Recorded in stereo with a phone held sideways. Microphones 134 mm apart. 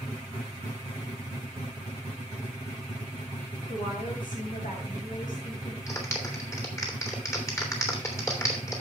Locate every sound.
3.7 s a woman speaking: 80° left, 6.5 m
5.9 s a clap: 20° left (ahead or behind), 3 m